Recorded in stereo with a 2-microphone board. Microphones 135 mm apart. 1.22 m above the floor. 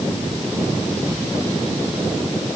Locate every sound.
Only background noise.